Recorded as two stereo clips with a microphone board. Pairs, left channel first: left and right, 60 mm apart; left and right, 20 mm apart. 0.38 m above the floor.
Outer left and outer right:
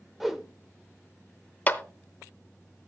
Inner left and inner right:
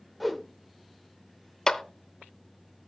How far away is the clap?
About 0.7 m.